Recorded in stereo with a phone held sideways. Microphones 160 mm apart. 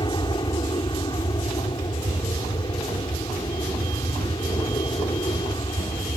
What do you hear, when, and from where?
0.0 s an aircraft: 30° left (ahead or behind)